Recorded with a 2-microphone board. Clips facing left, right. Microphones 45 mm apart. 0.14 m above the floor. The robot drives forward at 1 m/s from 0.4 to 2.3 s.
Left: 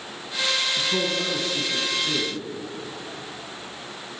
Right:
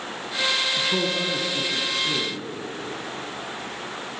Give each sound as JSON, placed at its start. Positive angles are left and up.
{"t": 0.8, "sound": "a man speaking", "side_deg": -15, "distance_m": 1.0}